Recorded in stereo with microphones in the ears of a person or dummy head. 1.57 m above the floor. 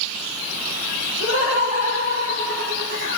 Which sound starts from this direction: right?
Laughter, at 1.2 s.